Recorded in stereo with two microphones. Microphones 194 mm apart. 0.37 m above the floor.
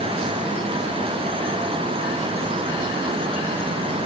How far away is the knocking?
No knocking in this recording.